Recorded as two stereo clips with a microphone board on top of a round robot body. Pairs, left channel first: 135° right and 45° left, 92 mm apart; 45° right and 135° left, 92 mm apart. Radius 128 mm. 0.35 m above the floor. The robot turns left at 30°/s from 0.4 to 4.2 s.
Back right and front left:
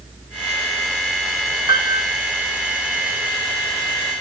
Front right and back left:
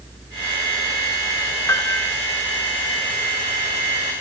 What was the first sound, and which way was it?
A piano, 10° left.